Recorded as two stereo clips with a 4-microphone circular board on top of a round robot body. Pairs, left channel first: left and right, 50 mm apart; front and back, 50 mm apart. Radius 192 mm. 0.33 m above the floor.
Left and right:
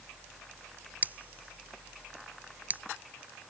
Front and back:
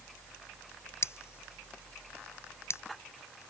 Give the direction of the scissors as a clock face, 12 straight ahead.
1 o'clock.